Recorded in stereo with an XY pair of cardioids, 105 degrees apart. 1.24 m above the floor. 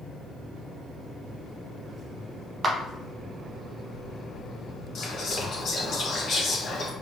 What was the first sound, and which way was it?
A clap, 35° right.